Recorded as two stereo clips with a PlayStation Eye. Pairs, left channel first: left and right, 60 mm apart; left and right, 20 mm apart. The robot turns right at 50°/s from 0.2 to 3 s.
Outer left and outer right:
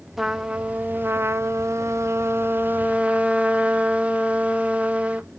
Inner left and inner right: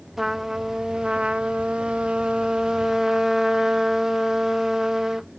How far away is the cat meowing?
No cat meowing in this recording.